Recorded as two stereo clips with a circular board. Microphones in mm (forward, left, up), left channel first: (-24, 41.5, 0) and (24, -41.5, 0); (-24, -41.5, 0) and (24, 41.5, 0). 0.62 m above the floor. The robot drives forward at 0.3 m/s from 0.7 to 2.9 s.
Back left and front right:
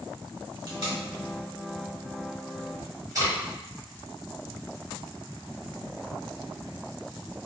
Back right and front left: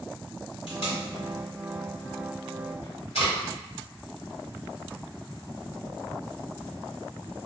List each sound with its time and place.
0.7 s tape being pulled: 90° right, 1.3 m; by 3.3 s 120° right, 1.5 m